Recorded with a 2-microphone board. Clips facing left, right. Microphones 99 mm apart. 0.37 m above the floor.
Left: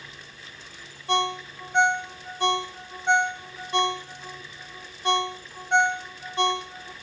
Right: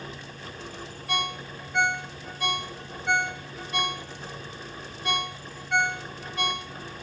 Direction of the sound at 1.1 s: 25° left (ahead or behind).